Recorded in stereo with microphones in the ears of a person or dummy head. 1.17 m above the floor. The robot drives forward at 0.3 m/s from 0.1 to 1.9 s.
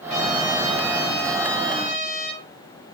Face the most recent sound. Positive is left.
turn(degrees=0)  # may be behind; listen again after turning